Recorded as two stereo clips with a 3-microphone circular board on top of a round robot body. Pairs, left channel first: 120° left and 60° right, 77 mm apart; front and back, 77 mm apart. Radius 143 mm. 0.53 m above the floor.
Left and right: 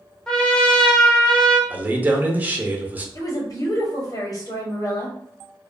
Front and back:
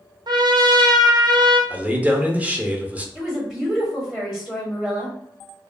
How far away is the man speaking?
About 0.8 m.